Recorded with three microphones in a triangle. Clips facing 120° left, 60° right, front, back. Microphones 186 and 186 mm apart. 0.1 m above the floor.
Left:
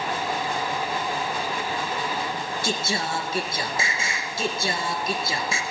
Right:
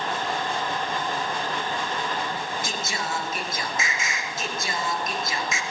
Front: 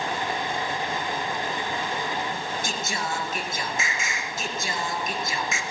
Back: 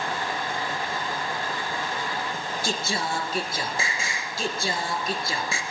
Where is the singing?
155° left, 2 m.